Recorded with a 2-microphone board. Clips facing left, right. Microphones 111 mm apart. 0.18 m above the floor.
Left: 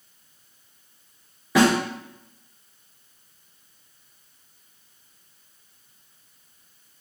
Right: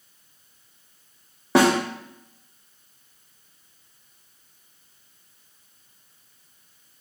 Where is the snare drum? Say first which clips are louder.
Right 1 dB; 65° right (ahead or behind), 1.6 m.